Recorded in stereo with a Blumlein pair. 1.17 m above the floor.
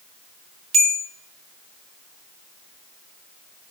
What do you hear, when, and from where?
0.7 s a bell: 25° right, 0.9 m